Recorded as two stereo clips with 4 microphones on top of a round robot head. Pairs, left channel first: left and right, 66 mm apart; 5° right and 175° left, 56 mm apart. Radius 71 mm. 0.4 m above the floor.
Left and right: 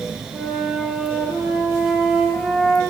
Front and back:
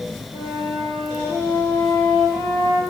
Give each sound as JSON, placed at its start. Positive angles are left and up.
{"t": 0.3, "sound": "a flute", "azimuth_deg": -5, "distance_m": 4.0}